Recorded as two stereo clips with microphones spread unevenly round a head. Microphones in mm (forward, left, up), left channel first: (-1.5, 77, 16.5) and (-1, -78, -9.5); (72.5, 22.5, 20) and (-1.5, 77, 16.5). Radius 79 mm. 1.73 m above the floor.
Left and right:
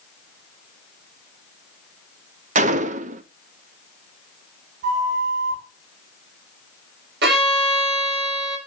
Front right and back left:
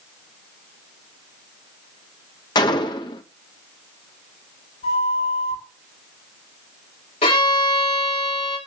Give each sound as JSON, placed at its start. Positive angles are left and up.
{"t": 2.5, "sound": "a gunshot", "azimuth_deg": -55, "distance_m": 0.6}
{"t": 4.8, "sound": "a flute", "azimuth_deg": -50, "distance_m": 8.5}
{"t": 7.2, "sound": "a violin", "azimuth_deg": -65, "distance_m": 6.5}